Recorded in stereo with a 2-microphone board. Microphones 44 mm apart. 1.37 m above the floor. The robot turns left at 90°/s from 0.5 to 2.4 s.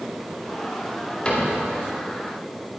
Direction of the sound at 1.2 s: 25° left (ahead or behind).